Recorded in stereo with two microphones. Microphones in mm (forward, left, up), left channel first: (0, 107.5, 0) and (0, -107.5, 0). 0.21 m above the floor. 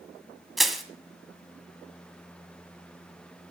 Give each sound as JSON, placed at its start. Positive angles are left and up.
{"t": 0.6, "sound": "crushing", "side_deg": 0, "distance_m": 1.7}